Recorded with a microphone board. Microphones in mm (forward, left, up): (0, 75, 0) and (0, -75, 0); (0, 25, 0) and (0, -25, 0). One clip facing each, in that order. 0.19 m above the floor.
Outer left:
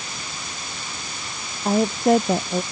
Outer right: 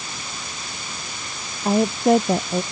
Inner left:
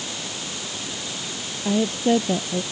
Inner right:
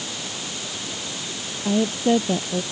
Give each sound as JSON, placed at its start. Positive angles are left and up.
{"t": 1.6, "sound": "a woman speaking", "side_deg": 0}